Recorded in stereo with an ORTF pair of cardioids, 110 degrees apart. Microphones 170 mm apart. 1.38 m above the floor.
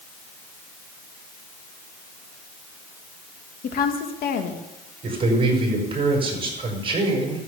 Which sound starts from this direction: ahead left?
A woman speaking, at 3.6 s.